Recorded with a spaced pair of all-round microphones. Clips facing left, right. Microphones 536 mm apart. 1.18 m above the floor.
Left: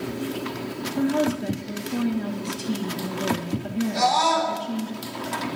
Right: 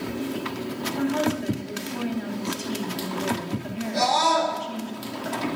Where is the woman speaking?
60° left (ahead or behind), 1.6 m.